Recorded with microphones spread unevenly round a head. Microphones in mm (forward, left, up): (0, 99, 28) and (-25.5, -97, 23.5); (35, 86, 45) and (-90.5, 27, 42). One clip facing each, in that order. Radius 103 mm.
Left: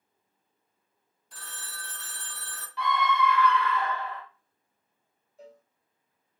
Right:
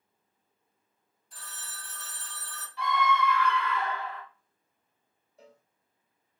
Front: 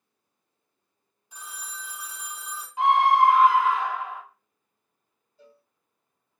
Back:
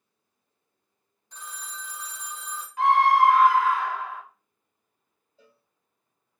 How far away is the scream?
About 1.1 m.